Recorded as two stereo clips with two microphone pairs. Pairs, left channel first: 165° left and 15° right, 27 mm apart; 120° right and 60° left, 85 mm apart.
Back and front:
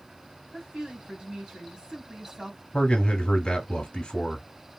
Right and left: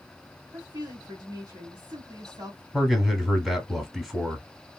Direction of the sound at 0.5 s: 40° left.